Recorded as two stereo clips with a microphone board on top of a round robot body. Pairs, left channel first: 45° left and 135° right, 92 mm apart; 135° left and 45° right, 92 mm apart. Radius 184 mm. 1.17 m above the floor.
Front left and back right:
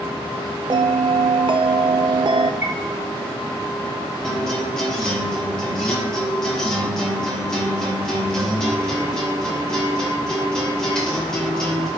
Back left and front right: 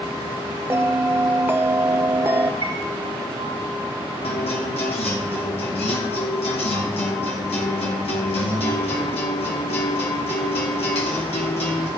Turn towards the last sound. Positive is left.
turn(degrees=130)